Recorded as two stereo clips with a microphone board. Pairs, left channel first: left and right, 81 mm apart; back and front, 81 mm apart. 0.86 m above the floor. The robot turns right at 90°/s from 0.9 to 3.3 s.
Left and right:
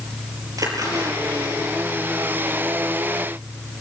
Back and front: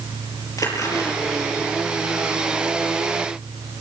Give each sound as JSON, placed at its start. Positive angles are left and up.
{"t": 0.6, "sound": "a splash", "azimuth_deg": -135, "distance_m": 5.5}